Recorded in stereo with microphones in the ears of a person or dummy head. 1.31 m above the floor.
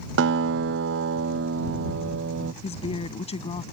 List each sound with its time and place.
0.2 s a guitar: 75° right (ahead or behind)
2.6 s a woman speaking: 30° left (ahead or behind)